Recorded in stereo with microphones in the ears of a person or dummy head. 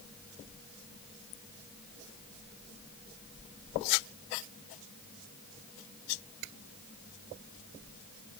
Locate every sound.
Only background noise.